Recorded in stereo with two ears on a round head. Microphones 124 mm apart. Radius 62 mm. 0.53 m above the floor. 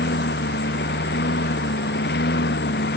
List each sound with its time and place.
0.0 s a lawn mower: 90° left; by 3.0 s 85° left